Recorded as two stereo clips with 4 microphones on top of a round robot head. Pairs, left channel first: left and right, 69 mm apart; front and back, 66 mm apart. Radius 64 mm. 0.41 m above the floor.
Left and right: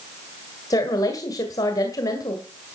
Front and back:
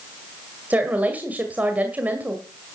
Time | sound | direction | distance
0.7 | a woman speaking | 120° left | 2.0 m